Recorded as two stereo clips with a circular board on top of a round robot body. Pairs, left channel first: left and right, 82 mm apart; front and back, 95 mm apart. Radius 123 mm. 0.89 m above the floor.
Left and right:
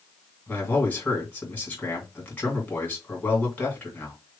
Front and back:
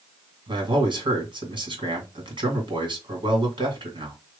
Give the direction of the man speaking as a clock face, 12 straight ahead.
7 o'clock.